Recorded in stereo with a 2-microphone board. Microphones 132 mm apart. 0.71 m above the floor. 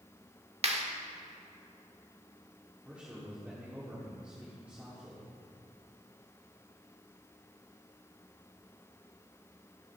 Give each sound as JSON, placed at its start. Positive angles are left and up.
{"t": 0.6, "sound": "a clap", "side_deg": -55, "distance_m": 1.2}
{"t": 2.9, "sound": "a man speaking", "side_deg": -10, "distance_m": 2.5}